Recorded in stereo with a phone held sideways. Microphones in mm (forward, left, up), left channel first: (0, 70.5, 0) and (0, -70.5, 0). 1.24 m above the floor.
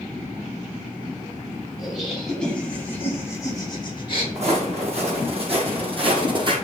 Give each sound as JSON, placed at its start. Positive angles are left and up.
{"t": 1.8, "sound": "laughter", "side_deg": 0, "distance_m": 3.5}
{"t": 4.3, "sound": "footsteps", "side_deg": -50, "distance_m": 3.0}